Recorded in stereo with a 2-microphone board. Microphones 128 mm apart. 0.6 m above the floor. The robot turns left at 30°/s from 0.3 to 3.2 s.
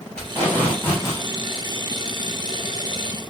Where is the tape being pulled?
10° left (ahead or behind), 1.4 m; by 1.2 s 25° left (ahead or behind), 1.4 m.